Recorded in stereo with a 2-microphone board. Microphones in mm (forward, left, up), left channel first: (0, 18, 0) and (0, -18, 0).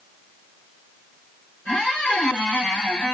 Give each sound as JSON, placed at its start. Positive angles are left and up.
{"t": 1.6, "sound": "a squeak", "side_deg": 40, "distance_m": 2.5}